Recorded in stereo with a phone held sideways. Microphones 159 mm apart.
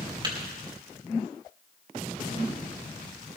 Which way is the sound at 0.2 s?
30° right (ahead or behind).